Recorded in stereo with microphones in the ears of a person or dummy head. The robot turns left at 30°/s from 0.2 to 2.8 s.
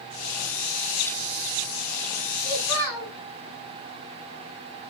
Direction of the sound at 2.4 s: 85° right.